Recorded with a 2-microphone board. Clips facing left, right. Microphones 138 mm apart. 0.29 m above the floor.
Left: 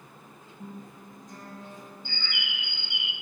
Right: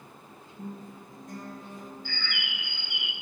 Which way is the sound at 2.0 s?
25° left (ahead or behind).